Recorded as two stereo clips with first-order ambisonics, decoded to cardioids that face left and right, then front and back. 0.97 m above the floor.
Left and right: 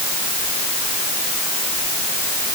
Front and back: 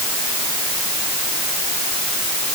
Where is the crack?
No crack in this recording.